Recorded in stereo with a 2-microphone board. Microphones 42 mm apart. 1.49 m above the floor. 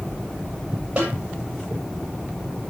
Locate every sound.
1.0 s a snare drum: 30° right (ahead or behind), 7 m